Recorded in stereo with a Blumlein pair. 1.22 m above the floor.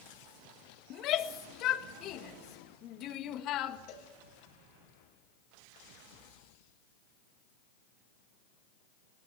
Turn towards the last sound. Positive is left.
turn(degrees=40)